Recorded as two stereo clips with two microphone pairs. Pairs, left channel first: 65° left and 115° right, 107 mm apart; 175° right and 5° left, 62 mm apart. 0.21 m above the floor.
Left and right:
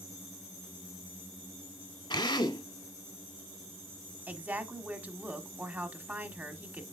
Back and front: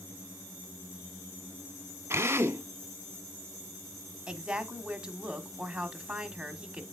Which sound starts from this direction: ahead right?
A woman speaking, at 4.3 s.